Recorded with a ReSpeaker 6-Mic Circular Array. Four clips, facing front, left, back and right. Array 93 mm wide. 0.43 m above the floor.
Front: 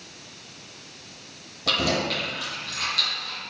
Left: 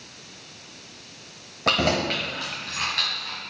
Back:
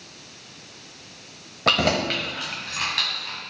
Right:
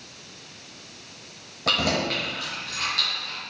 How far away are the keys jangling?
About 1.1 m.